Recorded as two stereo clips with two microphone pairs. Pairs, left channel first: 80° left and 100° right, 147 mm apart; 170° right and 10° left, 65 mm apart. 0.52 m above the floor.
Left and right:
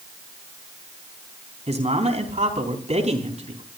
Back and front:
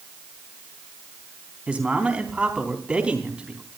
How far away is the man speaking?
About 4 m.